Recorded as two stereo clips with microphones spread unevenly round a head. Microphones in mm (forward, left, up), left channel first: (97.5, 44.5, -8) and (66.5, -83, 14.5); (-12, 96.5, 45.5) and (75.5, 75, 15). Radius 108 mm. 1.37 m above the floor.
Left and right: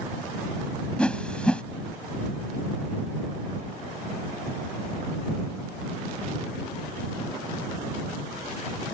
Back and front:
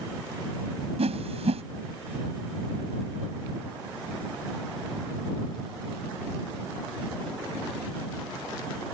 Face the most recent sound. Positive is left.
turn(degrees=-10)